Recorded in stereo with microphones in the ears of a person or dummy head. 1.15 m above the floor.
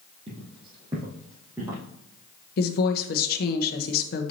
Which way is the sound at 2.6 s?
55° left (ahead or behind).